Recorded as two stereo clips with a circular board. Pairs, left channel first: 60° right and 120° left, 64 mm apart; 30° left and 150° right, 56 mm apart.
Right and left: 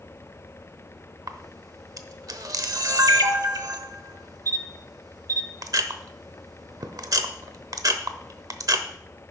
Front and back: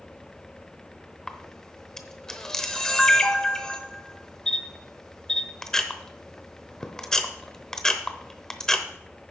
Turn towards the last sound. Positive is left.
turn(degrees=110)